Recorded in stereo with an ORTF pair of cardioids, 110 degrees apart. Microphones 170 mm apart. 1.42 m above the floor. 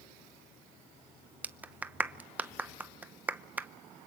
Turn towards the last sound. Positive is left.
turn(degrees=-10)